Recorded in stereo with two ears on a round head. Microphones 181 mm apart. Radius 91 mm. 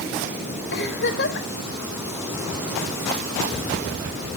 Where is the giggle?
55° left (ahead or behind), 3 m.